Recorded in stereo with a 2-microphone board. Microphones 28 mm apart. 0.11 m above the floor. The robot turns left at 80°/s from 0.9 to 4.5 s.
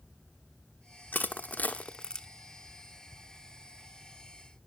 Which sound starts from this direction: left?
Crushing, at 1.1 s.